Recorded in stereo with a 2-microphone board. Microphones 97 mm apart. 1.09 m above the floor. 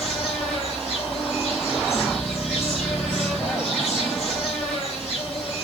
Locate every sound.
0.0 s an insect: 5° right (ahead or behind), 3.5 m